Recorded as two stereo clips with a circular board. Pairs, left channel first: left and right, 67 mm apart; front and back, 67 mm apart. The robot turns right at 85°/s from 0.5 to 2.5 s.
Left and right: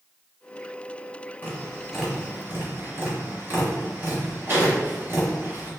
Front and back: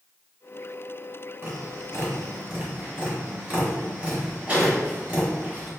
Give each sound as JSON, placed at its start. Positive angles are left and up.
{"t": 1.4, "sound": "tapping", "azimuth_deg": 145, "distance_m": 1.5}